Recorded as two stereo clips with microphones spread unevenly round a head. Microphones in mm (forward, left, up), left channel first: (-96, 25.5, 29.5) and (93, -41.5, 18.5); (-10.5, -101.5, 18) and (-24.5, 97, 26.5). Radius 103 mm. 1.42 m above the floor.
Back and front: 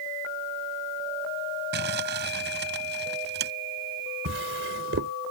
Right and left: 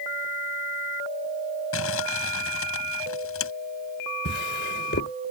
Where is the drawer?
50° right.